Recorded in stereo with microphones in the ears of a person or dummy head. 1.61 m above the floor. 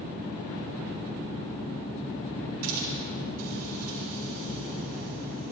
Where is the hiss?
90° right, 4 m.